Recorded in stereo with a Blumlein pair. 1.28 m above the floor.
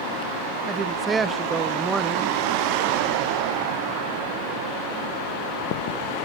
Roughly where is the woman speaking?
Ahead.